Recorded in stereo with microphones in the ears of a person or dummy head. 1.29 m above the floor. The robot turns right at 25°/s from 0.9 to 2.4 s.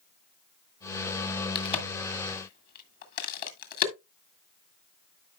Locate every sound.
1.6 s a crack: 30° left (ahead or behind), 1.6 m; by 3.9 s 50° left (ahead or behind), 1.6 m